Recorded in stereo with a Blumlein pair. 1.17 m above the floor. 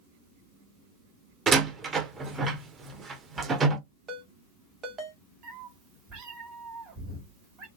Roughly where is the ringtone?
Ahead right.